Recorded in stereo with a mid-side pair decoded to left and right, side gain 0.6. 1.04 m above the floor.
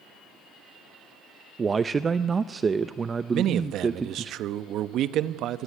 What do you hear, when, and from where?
1.6 s a man speaking: 25° right, 0.7 m
3.3 s a man speaking: 55° right, 1.0 m